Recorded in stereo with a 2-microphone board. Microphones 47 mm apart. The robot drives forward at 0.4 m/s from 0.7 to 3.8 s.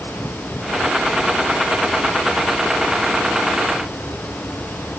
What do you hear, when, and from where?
Only background noise.